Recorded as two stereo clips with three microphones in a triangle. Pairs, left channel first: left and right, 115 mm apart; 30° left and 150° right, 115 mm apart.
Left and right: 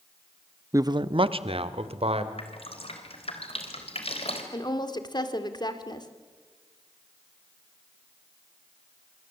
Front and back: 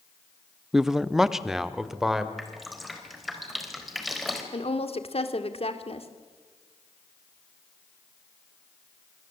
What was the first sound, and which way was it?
A man speaking, 70° right.